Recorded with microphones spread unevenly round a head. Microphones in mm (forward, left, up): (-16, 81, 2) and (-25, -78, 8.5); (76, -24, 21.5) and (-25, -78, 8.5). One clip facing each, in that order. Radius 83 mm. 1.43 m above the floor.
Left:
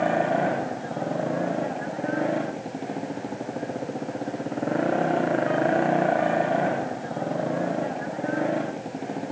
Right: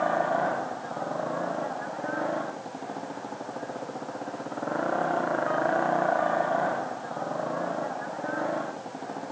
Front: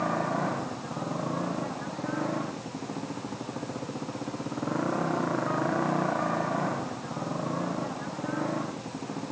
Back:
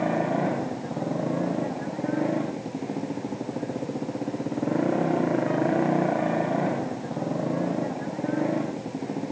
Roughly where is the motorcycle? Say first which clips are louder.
Left 3 dB, back 4 dB; behind left.